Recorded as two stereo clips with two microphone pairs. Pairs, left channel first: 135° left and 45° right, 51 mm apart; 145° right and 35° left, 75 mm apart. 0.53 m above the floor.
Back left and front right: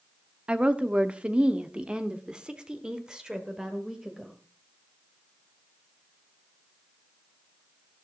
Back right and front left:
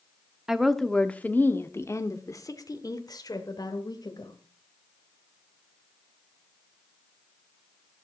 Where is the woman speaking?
35° right, 0.9 m; by 4.3 s 125° right, 2.5 m.